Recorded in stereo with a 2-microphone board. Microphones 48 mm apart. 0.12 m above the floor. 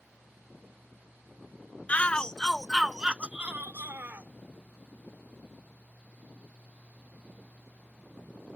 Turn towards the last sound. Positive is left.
turn(degrees=-50)  # may be behind; listen again after turning